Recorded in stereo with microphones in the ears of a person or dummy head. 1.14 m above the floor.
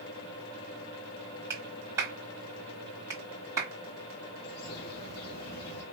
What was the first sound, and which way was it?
A clap, 15° right (ahead or behind).